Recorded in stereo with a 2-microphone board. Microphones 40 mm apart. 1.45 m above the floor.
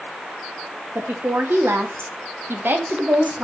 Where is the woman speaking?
70° right (ahead or behind), 2.5 m; by 3.5 s 30° right (ahead or behind), 1.9 m.